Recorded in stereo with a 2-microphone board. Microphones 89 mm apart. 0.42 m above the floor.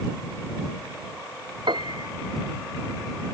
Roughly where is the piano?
Right.